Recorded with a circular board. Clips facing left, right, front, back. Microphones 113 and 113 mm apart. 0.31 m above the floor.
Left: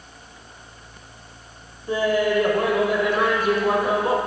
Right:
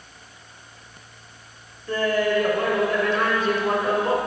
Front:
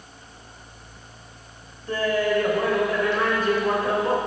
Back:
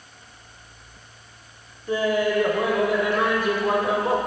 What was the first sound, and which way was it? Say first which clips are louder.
Laughter: left 1 dB, back 1 dB; 140° left.